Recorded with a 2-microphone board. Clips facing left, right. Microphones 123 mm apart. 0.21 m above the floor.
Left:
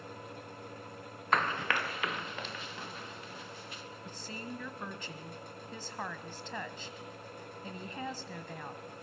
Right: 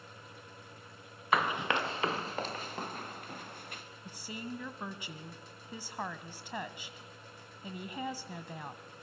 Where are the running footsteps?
5° right (ahead or behind), 1.1 m; by 3.8 s 55° right (ahead or behind), 3 m.